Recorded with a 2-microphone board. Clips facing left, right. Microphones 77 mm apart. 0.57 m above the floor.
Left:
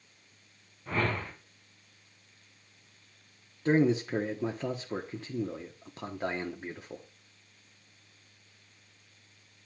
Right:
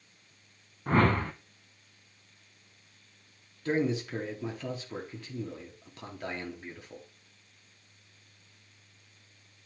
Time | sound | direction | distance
0.9 | a whoosh | 50° right (ahead or behind) | 0.7 m
3.6 | a man speaking | 30° left (ahead or behind) | 0.9 m